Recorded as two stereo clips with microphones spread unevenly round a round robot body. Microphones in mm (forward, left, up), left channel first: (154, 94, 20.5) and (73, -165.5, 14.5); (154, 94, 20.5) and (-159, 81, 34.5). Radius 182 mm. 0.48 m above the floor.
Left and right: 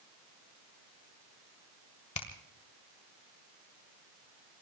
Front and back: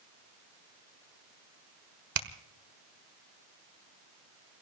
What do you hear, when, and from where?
2.1 s a finger snap: 140° left, 1.5 m